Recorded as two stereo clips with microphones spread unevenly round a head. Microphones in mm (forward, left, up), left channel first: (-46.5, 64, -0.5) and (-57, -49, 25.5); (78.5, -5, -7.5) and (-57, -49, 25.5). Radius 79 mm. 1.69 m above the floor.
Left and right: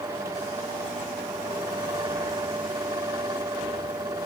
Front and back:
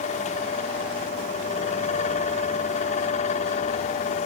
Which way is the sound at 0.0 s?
25° right.